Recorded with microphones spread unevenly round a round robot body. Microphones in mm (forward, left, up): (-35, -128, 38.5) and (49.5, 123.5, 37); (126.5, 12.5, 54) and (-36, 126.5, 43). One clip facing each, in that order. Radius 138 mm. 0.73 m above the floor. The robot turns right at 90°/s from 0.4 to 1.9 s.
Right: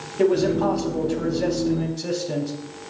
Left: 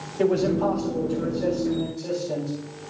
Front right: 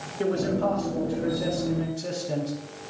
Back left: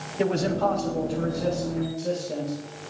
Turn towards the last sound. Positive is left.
turn(degrees=-45)